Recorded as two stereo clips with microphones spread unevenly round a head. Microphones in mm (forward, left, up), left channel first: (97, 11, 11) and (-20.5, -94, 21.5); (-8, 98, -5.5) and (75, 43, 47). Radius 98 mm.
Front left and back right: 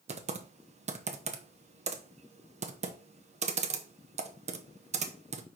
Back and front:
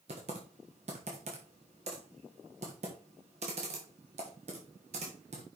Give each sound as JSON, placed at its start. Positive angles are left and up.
{"t": 0.1, "sound": "typing on a keyboard", "azimuth_deg": -90, "distance_m": 1.1}